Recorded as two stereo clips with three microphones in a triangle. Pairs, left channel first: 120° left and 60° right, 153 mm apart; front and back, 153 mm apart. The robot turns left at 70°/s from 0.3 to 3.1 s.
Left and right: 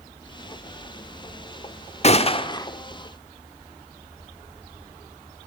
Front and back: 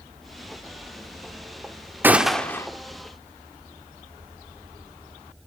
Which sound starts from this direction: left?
A gunshot, at 2.0 s.